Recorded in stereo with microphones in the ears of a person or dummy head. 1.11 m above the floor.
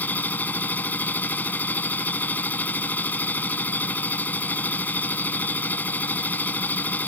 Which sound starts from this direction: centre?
A machine running, at 0.0 s.